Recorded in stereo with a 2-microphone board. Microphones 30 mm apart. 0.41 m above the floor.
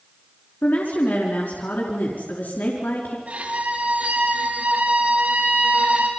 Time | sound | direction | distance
0.6 | a woman speaking | 80° left | 4.5 m
3.3 | a violin | 55° right (ahead or behind) | 4.5 m